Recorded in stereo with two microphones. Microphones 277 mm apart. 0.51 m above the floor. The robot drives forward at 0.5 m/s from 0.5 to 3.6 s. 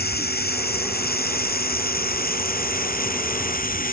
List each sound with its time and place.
0.0 s running water: 35° left (ahead or behind); by 3.9 s 30° left (ahead or behind)